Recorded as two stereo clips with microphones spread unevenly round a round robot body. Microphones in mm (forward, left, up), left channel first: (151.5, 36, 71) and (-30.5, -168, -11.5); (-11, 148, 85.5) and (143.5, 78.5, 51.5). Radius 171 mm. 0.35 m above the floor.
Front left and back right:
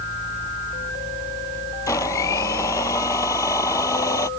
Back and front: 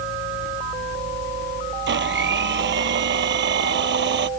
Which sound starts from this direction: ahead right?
A blender, at 1.9 s.